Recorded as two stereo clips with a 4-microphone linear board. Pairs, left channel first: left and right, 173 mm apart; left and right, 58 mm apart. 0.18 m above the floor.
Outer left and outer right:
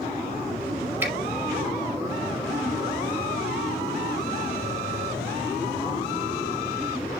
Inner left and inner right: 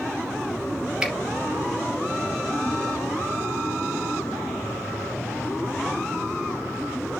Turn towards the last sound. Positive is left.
turn(degrees=-15)  # may be behind; listen again after turning